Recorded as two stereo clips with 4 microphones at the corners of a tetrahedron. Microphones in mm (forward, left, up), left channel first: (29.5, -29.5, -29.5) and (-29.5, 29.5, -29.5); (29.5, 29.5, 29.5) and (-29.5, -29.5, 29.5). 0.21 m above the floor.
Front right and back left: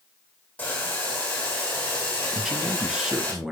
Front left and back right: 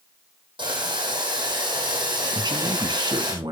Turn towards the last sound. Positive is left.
turn(degrees=-145)